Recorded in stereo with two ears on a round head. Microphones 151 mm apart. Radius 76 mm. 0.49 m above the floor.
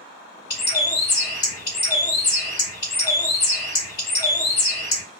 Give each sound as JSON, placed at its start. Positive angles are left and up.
{"t": 0.5, "sound": "a bird", "side_deg": 30, "distance_m": 1.6}